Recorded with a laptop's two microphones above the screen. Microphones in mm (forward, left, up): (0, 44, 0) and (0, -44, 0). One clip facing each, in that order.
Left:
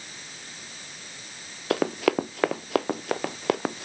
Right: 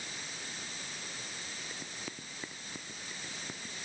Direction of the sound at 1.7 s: 80° left.